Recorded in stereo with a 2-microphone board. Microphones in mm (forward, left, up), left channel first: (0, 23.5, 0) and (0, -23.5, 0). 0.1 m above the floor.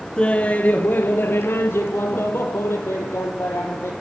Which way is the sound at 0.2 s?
20° left (ahead or behind).